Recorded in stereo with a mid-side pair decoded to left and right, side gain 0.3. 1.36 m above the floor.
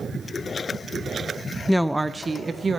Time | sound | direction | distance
1.7 | a woman speaking | 15° left | 0.7 m